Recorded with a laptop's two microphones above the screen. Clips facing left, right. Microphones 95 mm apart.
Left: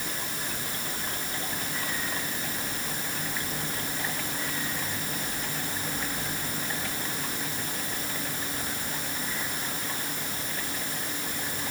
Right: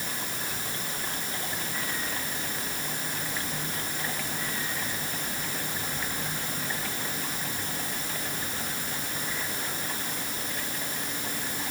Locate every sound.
Only background noise.